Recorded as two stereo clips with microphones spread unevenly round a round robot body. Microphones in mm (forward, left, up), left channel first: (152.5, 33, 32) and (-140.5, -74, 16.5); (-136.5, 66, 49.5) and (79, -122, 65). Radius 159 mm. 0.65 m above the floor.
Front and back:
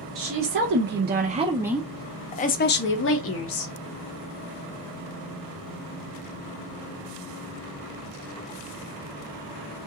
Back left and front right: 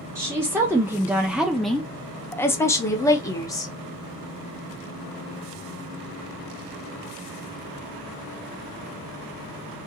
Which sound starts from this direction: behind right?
A woman speaking, at 0.1 s.